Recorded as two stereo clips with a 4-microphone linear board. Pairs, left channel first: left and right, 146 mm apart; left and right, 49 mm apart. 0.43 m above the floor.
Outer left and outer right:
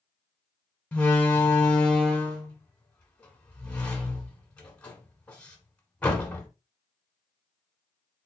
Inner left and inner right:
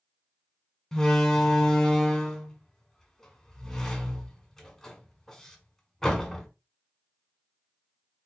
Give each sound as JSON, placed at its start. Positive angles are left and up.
{"t": 0.9, "sound": "a door slam", "side_deg": 10, "distance_m": 1.1}